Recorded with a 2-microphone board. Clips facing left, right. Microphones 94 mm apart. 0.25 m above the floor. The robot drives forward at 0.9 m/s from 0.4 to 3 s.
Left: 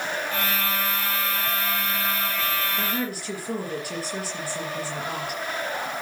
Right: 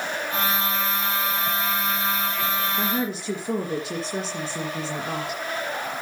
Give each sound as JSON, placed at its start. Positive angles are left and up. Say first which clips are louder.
{"t": 2.8, "sound": "a woman speaking", "louder": "right 3 dB", "side_deg": -20, "distance_m": 5.5}